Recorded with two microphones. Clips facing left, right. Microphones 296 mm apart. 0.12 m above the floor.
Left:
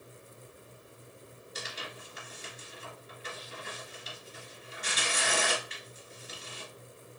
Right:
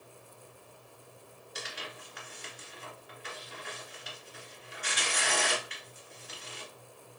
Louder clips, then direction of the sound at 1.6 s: Even; 25° left (ahead or behind).